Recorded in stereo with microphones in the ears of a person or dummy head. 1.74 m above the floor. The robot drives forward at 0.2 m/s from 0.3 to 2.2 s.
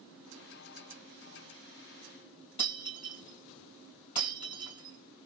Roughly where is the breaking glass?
Left.